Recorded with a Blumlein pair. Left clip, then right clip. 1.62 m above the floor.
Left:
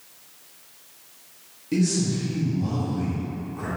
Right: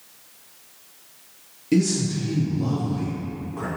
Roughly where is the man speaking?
Ahead.